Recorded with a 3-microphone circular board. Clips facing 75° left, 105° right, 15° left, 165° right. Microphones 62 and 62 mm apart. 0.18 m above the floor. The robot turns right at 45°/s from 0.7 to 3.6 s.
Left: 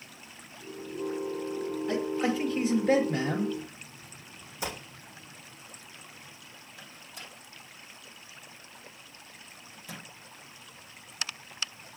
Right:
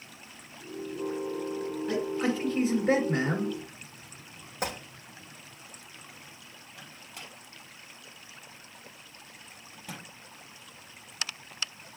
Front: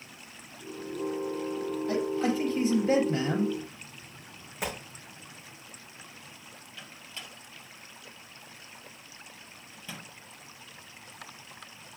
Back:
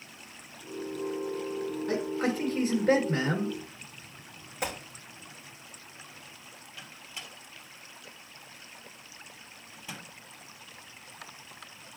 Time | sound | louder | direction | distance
1.9 | a man speaking | even, front 2 dB | 175° left | 2 m
4.6 | a gunshot | right 3 dB, back 1 dB | 75° right | 3.5 m
6.8 | a microwave | right 1 dB, even | 90° right | 4 m